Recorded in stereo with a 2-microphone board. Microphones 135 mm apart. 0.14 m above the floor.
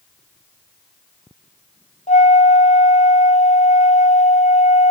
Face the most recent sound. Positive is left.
turn(degrees=70)  # may be behind; listen again after turning